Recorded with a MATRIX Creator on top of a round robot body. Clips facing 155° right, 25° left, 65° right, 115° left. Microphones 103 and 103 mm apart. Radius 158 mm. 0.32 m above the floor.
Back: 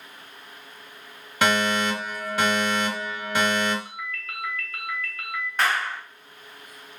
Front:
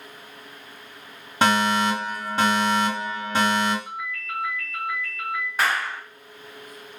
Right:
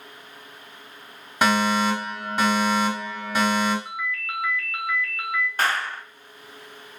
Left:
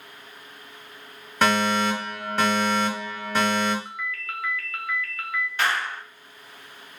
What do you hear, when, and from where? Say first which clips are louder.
1.4 s a fire alarm: front 2 dB, right 1 dB; straight ahead, 2.5 m
3.9 s a ringtone: front 3 dB, right 3 dB; 140° right, 1.4 m
5.6 s a clap: even, left 1 dB; 65° right, 1.2 m